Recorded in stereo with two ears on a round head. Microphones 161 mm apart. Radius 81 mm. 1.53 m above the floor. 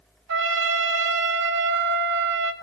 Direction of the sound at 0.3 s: 75° right (ahead or behind).